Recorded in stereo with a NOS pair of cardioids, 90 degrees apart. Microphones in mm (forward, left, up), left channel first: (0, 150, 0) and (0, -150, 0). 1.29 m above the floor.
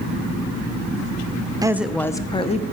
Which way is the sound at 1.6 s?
15° right.